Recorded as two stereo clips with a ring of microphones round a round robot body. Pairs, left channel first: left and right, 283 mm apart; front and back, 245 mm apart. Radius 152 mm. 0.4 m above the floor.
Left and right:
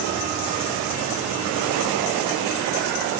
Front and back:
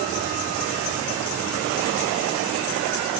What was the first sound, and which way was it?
Only background noise.